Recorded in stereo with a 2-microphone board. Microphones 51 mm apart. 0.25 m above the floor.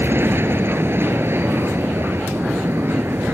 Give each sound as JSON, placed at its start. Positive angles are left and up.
{"t": 0.0, "sound": "an aircraft", "side_deg": -45}